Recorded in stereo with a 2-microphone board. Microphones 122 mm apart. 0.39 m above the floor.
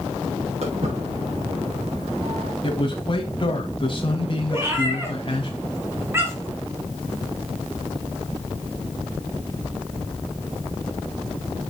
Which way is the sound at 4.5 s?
20° right (ahead or behind).